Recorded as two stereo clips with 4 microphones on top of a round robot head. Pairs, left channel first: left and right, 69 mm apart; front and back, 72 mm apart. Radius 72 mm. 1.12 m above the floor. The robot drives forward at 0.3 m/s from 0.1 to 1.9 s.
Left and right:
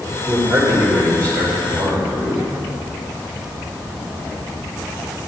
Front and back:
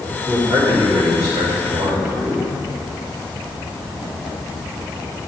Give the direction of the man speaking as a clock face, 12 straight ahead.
4 o'clock.